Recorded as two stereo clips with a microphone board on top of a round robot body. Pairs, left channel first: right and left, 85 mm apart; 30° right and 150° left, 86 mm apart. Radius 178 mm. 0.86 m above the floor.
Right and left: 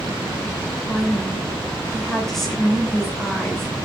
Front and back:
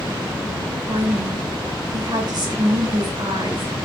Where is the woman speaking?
175° right, 4.5 m.